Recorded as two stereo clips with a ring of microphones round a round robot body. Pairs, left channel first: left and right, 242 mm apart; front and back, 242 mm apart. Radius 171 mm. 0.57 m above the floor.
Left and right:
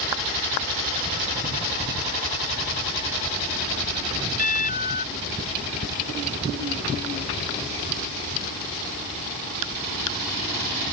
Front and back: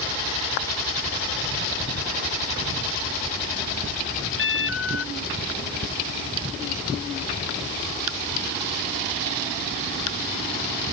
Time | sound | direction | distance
4.4 | an alarm | 35° left | ?